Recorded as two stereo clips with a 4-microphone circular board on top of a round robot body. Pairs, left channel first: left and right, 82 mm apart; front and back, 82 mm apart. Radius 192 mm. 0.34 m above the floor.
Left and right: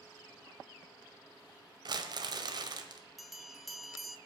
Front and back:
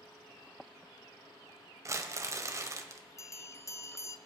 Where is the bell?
Straight ahead, 0.8 m.